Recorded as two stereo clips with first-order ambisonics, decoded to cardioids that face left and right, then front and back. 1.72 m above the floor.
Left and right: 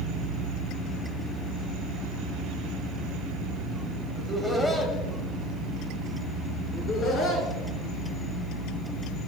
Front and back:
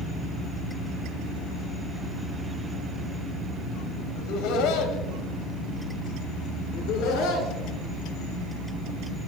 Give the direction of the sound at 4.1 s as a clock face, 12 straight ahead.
12 o'clock.